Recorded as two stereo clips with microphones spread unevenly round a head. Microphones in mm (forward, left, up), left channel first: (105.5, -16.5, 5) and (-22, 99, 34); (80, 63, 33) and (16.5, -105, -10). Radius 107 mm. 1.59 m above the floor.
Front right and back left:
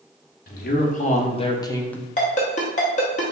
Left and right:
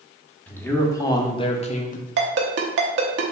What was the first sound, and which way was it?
A man speaking, 10° right.